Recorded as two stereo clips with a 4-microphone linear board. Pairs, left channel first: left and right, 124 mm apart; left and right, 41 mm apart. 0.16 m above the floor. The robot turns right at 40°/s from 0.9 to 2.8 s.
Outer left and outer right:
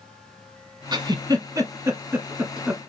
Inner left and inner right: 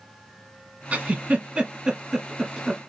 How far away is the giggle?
About 1.1 m.